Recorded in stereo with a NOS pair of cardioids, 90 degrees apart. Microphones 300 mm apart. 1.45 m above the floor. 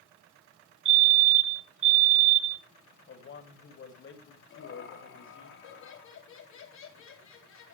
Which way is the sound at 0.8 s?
45° right.